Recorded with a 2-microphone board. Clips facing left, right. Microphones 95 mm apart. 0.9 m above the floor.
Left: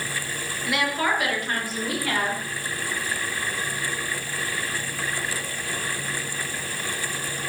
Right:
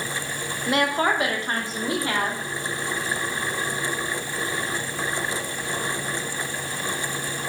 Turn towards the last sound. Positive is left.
turn(degrees=-25)  # may be behind; listen again after turning